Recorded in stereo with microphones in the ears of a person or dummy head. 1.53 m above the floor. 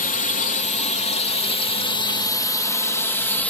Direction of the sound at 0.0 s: 50° left (ahead or behind).